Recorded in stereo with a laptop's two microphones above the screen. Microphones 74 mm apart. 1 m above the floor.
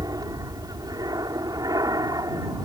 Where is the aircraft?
55° right (ahead or behind).